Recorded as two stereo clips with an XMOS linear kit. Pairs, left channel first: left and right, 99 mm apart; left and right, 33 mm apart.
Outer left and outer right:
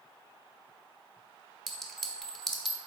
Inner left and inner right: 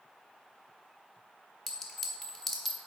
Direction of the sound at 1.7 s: 5° left (ahead or behind).